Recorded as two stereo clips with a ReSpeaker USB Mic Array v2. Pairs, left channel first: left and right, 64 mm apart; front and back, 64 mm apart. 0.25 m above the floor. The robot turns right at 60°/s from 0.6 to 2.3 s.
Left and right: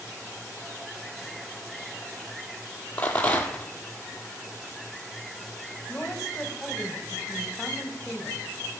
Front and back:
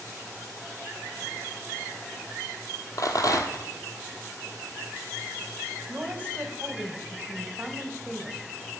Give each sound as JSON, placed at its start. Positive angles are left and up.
{"t": 3.0, "sound": "a rattle", "azimuth_deg": 25, "distance_m": 1.1}
{"t": 5.9, "sound": "a woman speaking", "azimuth_deg": 160, "distance_m": 1.0}